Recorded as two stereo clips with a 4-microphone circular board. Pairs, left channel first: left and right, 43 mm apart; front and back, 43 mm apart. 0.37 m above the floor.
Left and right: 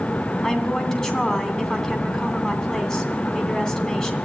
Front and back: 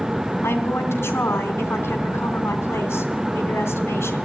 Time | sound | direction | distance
0.4 | a woman speaking | 15° left | 3 m